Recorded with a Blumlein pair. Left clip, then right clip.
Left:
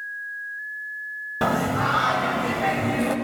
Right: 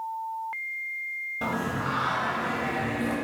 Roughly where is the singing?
Ahead left.